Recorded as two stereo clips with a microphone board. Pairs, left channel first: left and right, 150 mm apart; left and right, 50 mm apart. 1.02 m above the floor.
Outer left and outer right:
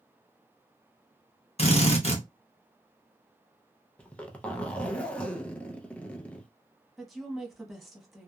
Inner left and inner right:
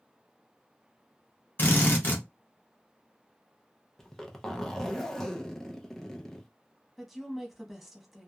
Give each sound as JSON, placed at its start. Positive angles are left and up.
{"t": 1.6, "sound": "a drill", "side_deg": 45, "distance_m": 0.8}
{"t": 4.0, "sound": "a zipper", "side_deg": 10, "distance_m": 0.5}
{"t": 7.0, "sound": "a woman speaking", "side_deg": 0, "distance_m": 0.9}